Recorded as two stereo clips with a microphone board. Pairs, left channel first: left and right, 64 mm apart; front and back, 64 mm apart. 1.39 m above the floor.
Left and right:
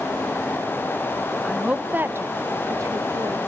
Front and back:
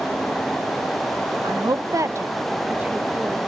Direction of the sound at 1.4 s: 175° right.